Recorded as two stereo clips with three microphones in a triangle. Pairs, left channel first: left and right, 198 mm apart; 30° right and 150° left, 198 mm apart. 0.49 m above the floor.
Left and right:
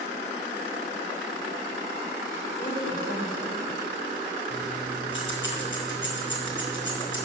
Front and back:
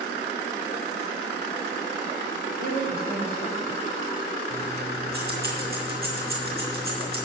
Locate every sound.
2.6 s a woman speaking: 155° left, 2.0 m
4.5 s keys jangling: 110° left, 4.5 m